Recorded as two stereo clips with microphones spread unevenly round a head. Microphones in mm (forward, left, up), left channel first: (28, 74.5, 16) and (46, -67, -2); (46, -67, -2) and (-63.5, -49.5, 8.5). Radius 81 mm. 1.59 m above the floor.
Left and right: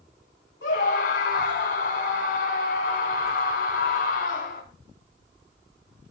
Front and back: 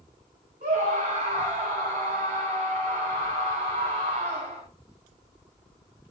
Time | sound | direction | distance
0.6 | a scream | 125° left | 7.5 m